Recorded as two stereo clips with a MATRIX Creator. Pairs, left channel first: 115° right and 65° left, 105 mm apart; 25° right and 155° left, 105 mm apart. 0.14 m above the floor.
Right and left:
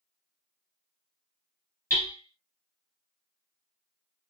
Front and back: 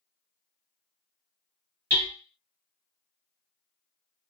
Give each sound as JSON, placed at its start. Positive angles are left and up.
{"t": 1.9, "sound": "hammering", "azimuth_deg": -170, "distance_m": 1.9}